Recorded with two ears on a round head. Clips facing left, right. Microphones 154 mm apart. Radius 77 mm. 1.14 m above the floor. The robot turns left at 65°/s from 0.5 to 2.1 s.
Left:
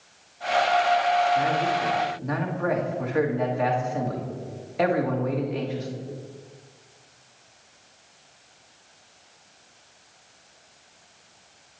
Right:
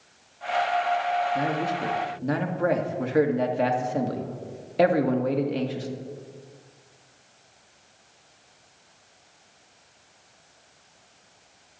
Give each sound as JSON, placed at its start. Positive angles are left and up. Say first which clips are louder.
{"t": 1.4, "sound": "a man speaking", "louder": "left 3 dB", "azimuth_deg": -90, "distance_m": 1.9}